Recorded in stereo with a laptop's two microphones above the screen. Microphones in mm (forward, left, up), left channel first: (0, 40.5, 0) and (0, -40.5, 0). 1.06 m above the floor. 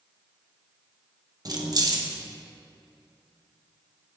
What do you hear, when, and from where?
1.4 s keys jangling: 50° right (ahead or behind), 0.5 m